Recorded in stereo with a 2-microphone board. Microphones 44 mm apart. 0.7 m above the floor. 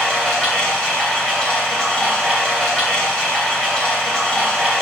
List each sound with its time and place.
0.0 s running water: 20° left (ahead or behind), 2.5 m